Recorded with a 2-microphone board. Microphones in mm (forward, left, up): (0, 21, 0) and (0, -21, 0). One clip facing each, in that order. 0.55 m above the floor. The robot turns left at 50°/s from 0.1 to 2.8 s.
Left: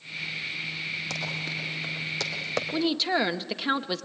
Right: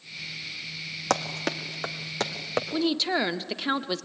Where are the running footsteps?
60° right (ahead or behind), 1.9 m; by 2.6 s 10° right (ahead or behind), 2 m.